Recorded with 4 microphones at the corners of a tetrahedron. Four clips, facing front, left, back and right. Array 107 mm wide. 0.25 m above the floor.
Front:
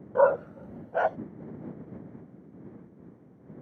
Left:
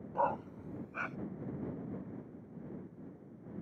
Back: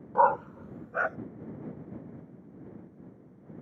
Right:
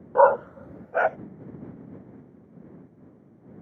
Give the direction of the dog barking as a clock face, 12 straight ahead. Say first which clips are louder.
Right 16 dB, front 1 dB; 3 o'clock.